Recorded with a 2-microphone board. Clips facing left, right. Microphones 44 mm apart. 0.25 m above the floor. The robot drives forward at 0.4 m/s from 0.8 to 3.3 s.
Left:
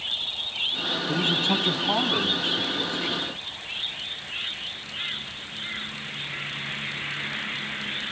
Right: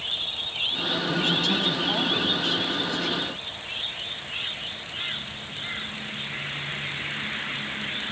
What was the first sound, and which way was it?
A man speaking, 35° left (ahead or behind).